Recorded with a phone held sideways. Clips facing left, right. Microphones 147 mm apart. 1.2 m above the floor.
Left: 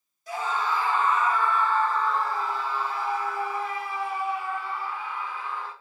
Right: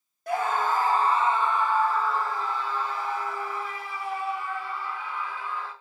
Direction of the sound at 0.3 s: 60° right (ahead or behind).